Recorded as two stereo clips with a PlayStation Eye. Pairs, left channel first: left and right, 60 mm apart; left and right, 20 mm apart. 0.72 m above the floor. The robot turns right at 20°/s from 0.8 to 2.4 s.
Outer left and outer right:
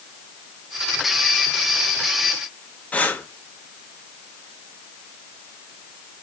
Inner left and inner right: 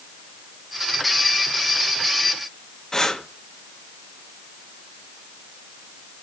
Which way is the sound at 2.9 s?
25° left (ahead or behind).